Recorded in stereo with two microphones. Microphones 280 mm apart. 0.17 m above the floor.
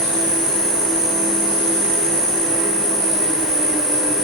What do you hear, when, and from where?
0.0 s an insect: 35° left (ahead or behind), 2.5 m